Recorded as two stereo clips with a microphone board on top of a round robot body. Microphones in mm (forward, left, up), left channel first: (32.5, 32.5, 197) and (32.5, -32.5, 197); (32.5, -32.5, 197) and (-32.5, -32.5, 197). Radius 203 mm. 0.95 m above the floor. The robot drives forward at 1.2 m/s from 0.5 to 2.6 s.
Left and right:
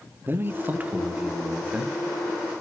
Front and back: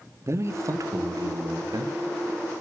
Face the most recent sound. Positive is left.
turn(degrees=-170)